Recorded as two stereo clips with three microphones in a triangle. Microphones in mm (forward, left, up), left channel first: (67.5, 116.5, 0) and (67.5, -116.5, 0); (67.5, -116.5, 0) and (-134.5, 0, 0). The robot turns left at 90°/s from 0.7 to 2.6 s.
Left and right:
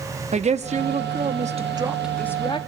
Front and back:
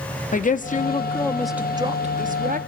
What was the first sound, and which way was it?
A woman speaking, 50° right.